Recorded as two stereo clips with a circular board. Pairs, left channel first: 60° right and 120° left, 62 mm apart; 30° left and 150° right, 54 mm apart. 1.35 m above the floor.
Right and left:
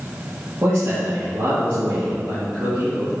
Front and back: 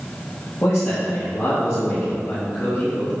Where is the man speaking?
70° left, 1.9 m.